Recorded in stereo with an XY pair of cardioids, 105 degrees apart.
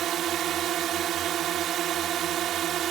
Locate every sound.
0.0 s a drone: 65° right